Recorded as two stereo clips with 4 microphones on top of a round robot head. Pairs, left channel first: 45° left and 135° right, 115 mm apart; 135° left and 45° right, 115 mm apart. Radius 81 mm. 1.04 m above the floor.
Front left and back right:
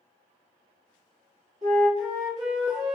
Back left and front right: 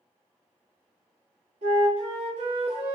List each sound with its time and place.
1.6 s a flute: 80° right, 1.8 m